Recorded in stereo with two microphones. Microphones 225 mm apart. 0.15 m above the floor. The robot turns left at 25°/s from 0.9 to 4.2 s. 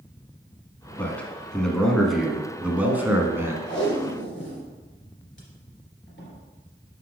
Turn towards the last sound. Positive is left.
turn(degrees=55)  # may be behind; listen again after turning